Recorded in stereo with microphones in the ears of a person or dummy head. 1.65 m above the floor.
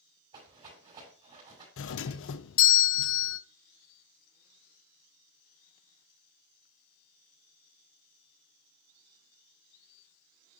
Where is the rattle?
35° right (ahead or behind), 6 m.